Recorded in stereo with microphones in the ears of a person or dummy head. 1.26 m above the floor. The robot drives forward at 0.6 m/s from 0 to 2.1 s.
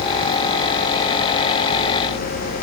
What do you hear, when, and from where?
Only background noise.